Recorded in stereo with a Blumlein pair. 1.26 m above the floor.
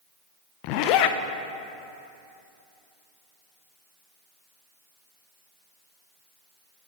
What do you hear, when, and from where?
0.6 s a zipper: 40° left, 0.7 m